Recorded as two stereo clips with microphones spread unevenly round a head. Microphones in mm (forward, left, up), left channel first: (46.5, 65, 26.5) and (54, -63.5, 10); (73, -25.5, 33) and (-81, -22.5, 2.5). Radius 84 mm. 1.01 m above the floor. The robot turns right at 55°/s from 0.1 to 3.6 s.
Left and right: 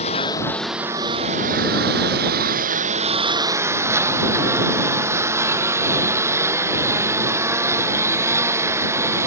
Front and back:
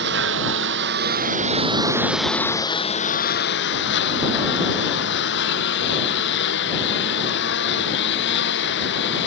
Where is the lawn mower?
150° left; by 9.3 s 15° right.